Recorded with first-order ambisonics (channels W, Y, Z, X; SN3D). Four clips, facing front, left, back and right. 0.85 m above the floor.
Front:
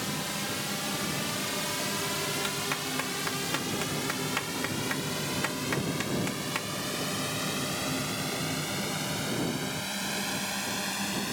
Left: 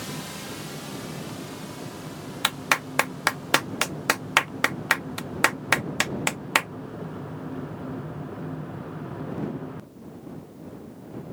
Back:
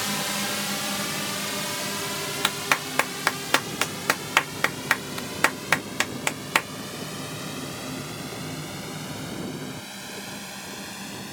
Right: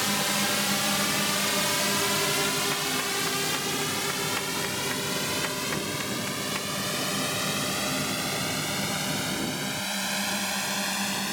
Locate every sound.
0.0 s a drone: 125° right; by 11.3 s 75° right
2.4 s a clap: 130° left